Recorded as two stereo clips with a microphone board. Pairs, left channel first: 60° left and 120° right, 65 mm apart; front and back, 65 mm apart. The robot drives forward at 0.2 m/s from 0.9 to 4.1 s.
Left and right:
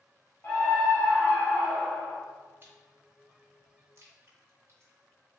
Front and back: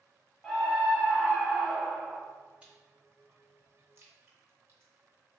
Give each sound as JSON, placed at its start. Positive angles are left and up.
{"t": 0.4, "sound": "a scream", "azimuth_deg": 75, "distance_m": 0.7}
{"t": 2.6, "sound": "chewing", "azimuth_deg": -125, "distance_m": 0.7}